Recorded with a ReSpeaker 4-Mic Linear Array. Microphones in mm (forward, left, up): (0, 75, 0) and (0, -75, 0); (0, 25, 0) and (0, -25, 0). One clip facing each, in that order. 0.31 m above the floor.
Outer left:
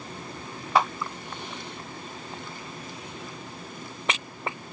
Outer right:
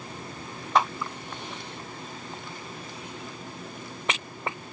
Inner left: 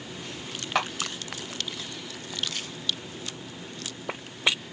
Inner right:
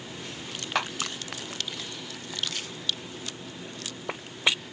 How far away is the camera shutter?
About 1.8 m.